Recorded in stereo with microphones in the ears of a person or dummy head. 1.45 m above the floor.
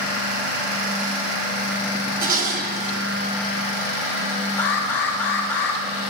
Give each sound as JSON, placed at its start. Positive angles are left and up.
{"t": 2.2, "sound": "dishes clattering", "side_deg": -50, "distance_m": 2.5}
{"t": 4.6, "sound": "an alarm", "side_deg": 10, "distance_m": 4.5}